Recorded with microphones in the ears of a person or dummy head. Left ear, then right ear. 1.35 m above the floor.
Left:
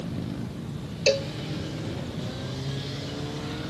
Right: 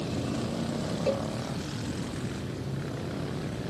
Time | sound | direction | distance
1.1 | a cowbell | 65° left (ahead or behind) | ?